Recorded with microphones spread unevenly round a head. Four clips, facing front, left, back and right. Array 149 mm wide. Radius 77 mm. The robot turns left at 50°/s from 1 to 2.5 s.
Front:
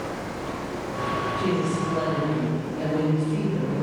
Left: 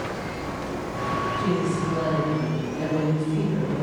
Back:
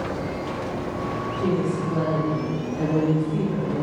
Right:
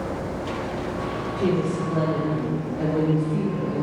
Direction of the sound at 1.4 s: 95° right.